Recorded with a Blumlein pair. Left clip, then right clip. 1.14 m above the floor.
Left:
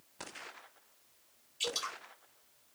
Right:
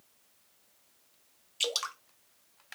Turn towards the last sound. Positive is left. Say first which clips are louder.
# right 4 dB
turn(degrees=-30)